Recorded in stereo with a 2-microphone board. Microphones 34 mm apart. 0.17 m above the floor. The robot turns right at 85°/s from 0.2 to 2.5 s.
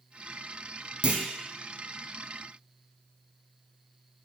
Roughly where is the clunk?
Right.